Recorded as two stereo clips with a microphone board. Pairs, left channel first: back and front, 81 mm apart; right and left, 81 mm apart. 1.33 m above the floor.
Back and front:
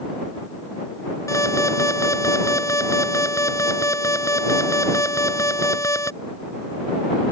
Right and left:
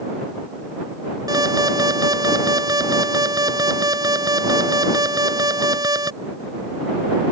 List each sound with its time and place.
1.3 s an alarm: 130° left